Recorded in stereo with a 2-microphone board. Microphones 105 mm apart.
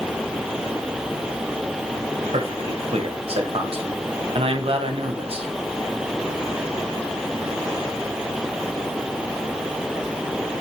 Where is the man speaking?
60° right (ahead or behind), 1.4 m.